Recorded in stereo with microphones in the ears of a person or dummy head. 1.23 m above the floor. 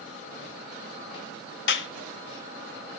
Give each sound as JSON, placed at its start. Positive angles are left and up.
{"t": 1.7, "sound": "a clap", "side_deg": 65, "distance_m": 0.9}